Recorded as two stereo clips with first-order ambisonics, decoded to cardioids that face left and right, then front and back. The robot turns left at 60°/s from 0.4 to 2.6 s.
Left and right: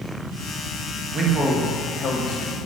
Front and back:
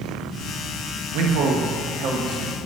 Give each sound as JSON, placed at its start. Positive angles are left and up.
{"t": 1.1, "sound": "a man speaking", "azimuth_deg": -155, "distance_m": 1.4}